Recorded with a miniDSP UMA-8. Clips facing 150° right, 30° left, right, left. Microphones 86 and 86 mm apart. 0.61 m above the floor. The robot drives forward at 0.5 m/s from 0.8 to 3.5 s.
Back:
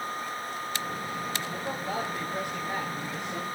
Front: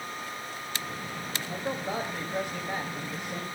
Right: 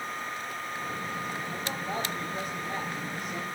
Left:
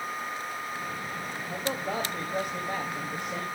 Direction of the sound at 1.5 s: 85° left.